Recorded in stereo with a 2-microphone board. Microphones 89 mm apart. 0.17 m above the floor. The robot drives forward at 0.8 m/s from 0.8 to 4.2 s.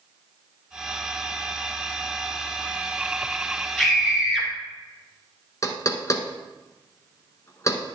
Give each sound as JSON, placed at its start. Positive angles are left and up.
{"t": 3.8, "sound": "a scream", "side_deg": 5, "distance_m": 4.0}
{"t": 5.6, "sound": "knocking", "side_deg": 35, "distance_m": 1.1}